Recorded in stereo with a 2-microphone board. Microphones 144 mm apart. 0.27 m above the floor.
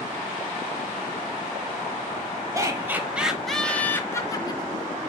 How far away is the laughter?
About 1.2 m.